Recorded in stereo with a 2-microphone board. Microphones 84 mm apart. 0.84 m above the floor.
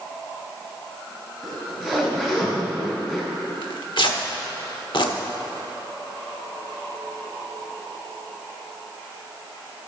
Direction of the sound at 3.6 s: 65° left (ahead or behind).